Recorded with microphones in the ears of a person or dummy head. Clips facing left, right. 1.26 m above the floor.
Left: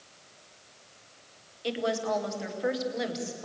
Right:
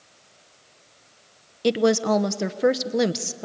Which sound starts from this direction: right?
A woman speaking, at 1.6 s.